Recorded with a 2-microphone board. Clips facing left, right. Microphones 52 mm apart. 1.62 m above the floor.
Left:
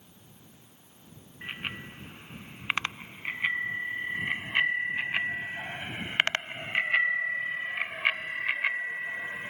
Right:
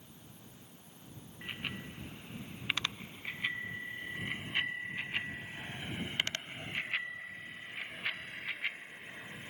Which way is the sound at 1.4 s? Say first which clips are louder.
Left 4 dB; 35° left (ahead or behind).